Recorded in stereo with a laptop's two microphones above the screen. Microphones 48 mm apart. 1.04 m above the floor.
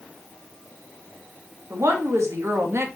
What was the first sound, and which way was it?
A woman speaking, 75° right (ahead or behind).